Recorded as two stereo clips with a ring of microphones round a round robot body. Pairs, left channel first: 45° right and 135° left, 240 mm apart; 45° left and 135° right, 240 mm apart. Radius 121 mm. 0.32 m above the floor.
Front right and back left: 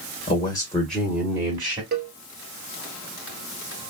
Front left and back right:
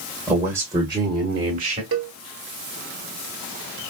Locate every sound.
0.3 s a man speaking: 60° right, 1.6 m; by 1.8 s straight behind, 1.8 m
1.9 s a cowbell: 170° right, 1.0 m